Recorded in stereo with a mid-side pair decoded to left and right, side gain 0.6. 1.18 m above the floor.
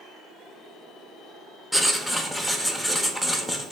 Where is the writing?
10° left, 0.6 m.